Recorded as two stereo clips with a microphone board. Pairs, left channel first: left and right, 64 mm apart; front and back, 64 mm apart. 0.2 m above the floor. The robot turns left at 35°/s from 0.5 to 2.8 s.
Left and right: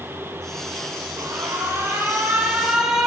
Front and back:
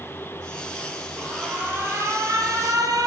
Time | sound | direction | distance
1.2 | an alarm | 115° right | 6 m